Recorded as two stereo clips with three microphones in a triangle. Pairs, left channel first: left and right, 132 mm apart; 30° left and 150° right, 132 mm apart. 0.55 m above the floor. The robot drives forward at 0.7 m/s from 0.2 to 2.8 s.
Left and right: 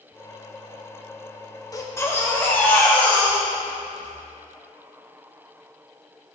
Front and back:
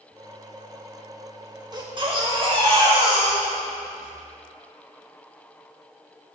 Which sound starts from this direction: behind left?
A baby crying, at 1.7 s.